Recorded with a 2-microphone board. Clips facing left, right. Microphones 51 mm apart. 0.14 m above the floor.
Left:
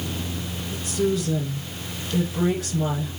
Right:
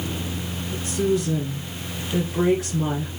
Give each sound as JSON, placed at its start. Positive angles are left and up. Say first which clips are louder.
{"t": 0.7, "sound": "a woman speaking", "louder": "right 1 dB", "side_deg": -30, "distance_m": 2.5}